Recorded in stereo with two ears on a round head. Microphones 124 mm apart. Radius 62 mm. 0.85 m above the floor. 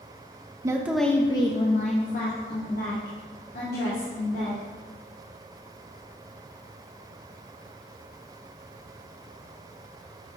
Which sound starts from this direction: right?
A woman speaking, at 0.6 s.